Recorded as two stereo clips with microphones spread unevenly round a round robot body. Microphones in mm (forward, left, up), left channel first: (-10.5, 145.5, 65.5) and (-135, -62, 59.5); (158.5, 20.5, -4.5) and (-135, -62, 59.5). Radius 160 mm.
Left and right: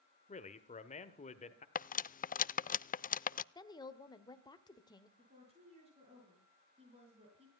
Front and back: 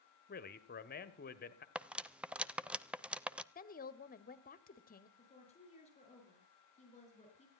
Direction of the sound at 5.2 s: 50° right.